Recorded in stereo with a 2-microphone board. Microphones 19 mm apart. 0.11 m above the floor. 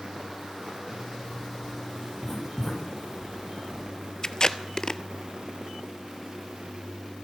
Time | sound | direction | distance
0.9 | a zipper | 40° left (ahead or behind) | 2 m
2.2 | writing | 30° left (ahead or behind) | 4.5 m
4.2 | tape being pulled | 40° left (ahead or behind) | 0.6 m